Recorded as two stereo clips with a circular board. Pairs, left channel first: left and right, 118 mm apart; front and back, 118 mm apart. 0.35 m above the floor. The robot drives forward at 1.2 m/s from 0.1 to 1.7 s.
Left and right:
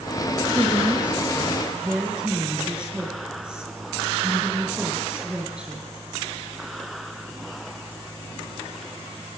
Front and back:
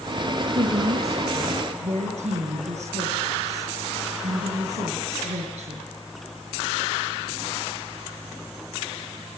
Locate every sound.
0.6 s a woman speaking: 170° right, 4 m